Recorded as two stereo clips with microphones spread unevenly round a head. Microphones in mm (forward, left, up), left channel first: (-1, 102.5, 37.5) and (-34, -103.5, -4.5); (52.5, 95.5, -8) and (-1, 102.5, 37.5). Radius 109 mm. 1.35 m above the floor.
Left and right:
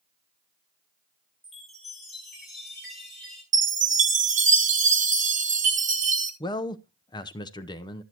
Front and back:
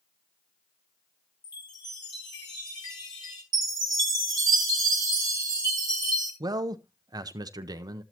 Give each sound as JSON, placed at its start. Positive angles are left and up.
{"t": 1.4, "sound": "a chime", "azimuth_deg": -5, "distance_m": 4.0}
{"t": 3.5, "sound": "a chime", "azimuth_deg": -150, "distance_m": 1.5}
{"t": 6.4, "sound": "a man speaking", "azimuth_deg": 155, "distance_m": 0.7}